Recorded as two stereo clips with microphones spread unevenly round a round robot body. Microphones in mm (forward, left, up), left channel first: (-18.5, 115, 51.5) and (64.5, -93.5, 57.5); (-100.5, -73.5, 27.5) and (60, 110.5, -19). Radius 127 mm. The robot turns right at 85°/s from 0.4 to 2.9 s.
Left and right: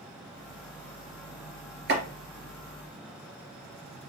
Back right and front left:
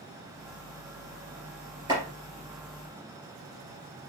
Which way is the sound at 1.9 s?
25° right.